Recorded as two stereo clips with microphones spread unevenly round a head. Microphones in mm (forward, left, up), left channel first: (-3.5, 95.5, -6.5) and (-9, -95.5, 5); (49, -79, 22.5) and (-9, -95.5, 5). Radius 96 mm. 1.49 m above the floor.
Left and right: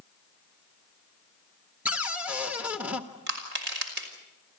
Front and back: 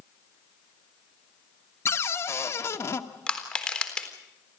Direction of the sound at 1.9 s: 10° right.